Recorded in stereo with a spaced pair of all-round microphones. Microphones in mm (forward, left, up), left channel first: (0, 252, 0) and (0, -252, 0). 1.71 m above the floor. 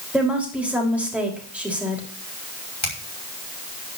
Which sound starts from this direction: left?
A finger snap, at 2.8 s.